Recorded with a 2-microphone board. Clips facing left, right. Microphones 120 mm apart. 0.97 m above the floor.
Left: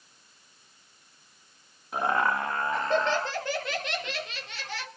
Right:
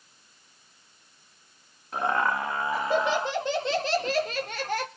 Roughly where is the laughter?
Centre.